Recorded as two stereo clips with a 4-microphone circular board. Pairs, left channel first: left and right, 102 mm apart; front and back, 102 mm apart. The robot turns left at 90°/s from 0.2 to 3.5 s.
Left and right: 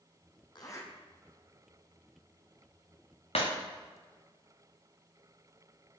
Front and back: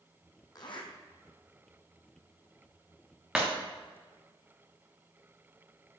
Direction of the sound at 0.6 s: 50° left.